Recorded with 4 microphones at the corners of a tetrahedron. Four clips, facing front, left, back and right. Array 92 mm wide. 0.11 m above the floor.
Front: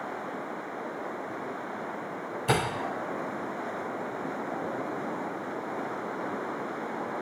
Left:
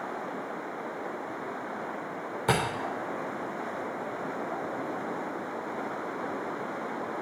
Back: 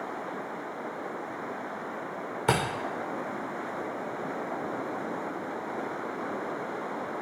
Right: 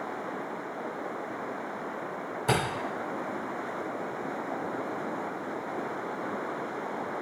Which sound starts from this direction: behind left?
A camera shutter, at 2.5 s.